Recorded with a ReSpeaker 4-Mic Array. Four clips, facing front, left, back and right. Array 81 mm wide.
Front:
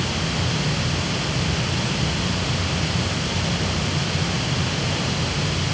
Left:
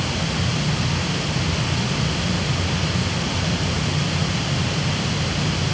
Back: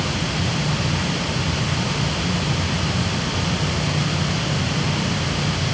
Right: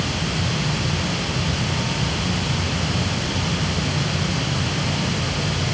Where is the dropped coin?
No dropped coin in this recording.